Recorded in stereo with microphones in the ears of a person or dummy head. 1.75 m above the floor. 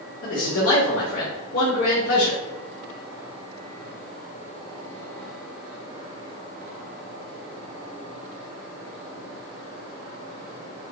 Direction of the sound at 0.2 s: 60° left (ahead or behind).